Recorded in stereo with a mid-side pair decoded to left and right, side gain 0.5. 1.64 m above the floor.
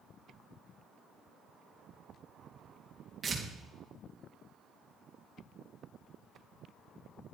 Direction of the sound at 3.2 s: 25° right.